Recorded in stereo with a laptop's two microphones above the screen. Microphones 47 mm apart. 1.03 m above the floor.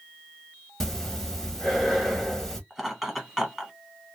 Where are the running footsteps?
No running footsteps in this recording.